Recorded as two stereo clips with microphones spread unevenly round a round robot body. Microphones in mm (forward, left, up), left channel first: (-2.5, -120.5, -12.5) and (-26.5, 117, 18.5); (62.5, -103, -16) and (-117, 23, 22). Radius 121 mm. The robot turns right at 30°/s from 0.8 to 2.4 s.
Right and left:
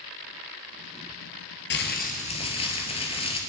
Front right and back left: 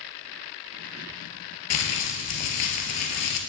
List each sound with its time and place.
1.7 s crumpling: 35° right, 2 m; by 3.4 s 15° right, 2 m